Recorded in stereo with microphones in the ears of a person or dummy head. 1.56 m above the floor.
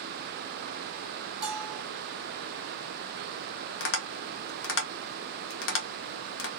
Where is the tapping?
75° left (ahead or behind), 0.9 m.